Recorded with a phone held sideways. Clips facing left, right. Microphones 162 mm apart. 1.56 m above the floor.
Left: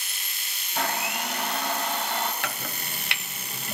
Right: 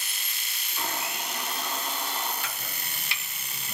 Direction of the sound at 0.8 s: 70° left (ahead or behind).